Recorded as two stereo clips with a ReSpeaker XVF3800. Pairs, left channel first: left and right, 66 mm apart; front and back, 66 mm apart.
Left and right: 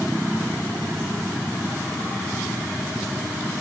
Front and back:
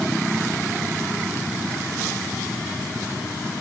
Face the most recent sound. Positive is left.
No sound to turn to.